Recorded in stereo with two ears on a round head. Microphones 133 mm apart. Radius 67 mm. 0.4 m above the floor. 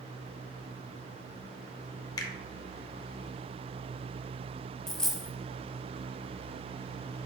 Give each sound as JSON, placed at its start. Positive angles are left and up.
{"t": 2.2, "sound": "a finger snap", "side_deg": 25, "distance_m": 0.6}
{"t": 4.9, "sound": "a dropped coin", "side_deg": 5, "distance_m": 0.6}